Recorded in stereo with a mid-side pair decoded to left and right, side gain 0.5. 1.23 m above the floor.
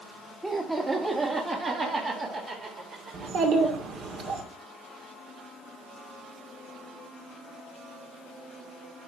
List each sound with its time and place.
0.4 s laughter: 20° right, 1.8 m; by 3.8 s 70° right, 3.5 m
3.1 s a child speaking: 60° right, 2.5 m